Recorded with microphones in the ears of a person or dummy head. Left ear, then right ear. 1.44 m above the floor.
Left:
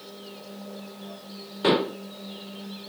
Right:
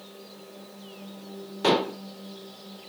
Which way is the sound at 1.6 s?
10° right (ahead or behind).